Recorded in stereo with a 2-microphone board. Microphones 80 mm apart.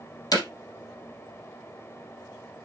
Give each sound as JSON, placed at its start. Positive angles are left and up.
{"t": 0.3, "sound": "hammering", "side_deg": 55, "distance_m": 3.0}